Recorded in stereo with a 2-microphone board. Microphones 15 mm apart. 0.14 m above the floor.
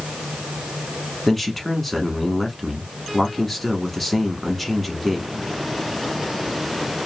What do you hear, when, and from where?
1.3 s a man speaking: 10° left (ahead or behind), 1.0 m